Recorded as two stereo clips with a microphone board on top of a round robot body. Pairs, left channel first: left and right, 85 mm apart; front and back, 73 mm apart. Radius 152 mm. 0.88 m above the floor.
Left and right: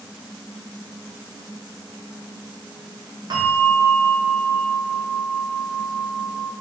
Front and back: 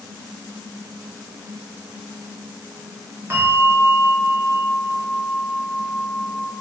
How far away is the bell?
About 2 m.